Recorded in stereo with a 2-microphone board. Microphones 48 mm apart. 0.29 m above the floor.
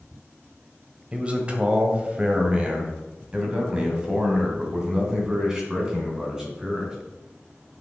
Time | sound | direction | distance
1.1 | a man speaking | 25° right (ahead or behind) | 1.8 m